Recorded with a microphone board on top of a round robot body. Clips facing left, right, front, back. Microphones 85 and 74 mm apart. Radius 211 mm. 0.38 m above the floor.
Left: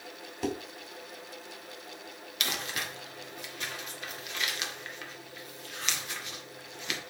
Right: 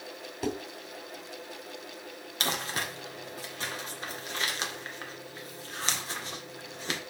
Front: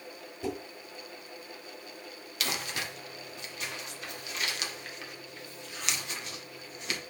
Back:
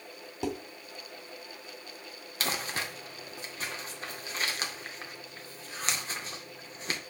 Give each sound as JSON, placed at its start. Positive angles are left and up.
{"t": 0.4, "sound": "dishes clattering", "azimuth_deg": 180, "distance_m": 3.5}
{"t": 2.4, "sound": "crumpling", "azimuth_deg": -135, "distance_m": 2.0}